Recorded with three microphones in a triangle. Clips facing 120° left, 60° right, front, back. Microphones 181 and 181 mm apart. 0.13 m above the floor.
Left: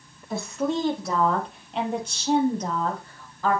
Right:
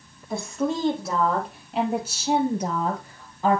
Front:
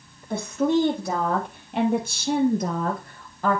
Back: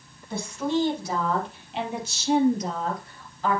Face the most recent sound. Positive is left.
turn(degrees=0)